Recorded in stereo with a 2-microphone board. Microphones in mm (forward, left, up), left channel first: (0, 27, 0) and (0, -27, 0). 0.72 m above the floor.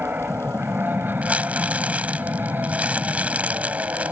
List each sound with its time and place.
0.0 s an aircraft: 35° right (ahead or behind); by 4.1 s 40° right (ahead or behind)
1.2 s crumpling: 25° right (ahead or behind)